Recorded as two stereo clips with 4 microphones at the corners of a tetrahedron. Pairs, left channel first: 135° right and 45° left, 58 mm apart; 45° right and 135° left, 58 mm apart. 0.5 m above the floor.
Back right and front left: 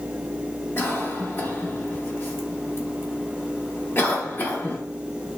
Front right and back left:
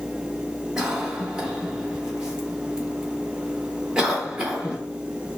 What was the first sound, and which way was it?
A cough, 155° right.